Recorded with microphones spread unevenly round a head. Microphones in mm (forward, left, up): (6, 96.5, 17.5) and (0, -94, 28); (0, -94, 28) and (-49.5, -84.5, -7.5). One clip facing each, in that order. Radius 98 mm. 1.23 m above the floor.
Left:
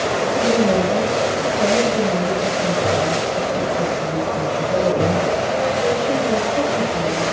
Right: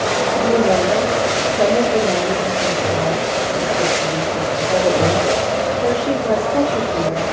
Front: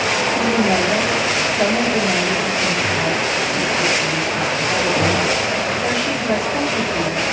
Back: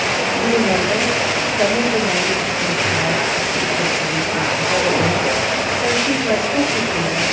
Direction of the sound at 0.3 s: 110° right.